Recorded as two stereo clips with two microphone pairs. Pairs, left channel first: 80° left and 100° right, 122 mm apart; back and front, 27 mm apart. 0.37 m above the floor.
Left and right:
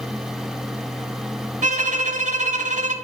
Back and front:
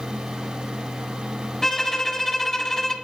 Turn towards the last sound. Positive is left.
turn(degrees=-105)